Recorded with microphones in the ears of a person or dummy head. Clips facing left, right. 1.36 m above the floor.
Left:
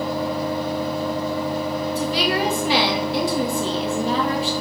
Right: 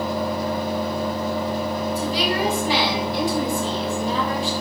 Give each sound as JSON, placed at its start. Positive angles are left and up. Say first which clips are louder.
{"t": 0.0, "sound": "a fan", "louder": "even", "side_deg": -45, "distance_m": 1.4}
{"t": 1.9, "sound": "a woman speaking", "louder": "left 3 dB", "side_deg": 50, "distance_m": 1.7}